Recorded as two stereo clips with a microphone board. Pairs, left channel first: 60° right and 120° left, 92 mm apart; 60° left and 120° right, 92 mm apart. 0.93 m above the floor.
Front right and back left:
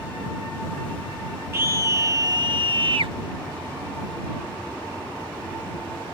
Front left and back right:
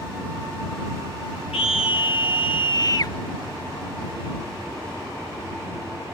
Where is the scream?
55° left; by 3.1 s 110° left.